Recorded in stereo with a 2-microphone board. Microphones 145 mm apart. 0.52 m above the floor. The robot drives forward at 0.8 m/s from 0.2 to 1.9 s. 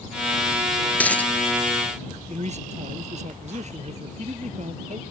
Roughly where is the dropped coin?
Centre.